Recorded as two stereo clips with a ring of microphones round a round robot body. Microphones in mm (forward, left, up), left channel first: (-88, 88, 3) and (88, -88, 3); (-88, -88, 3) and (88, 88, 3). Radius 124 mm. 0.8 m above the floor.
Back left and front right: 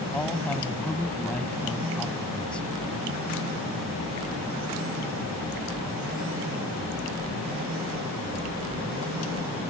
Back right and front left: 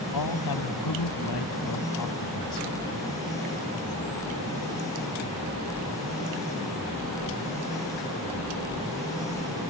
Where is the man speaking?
140° right.